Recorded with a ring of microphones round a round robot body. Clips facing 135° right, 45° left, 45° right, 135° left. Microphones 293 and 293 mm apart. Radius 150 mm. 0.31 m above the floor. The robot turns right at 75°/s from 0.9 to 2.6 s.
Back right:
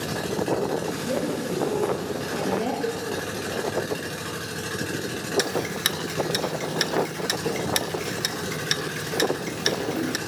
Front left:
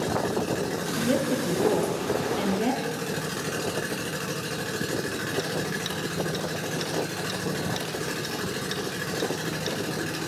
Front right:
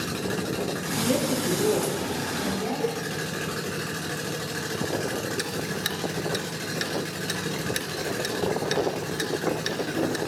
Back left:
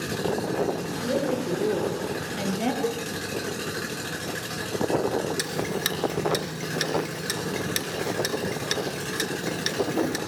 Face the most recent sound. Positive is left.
turn(degrees=-150)